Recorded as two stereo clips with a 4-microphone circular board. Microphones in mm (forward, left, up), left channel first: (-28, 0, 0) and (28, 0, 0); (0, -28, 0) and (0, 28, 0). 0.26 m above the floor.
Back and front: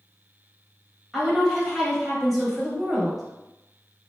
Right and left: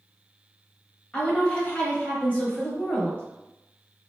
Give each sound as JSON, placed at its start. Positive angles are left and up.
{"t": 1.1, "sound": "a woman speaking", "azimuth_deg": -85, "distance_m": 0.9}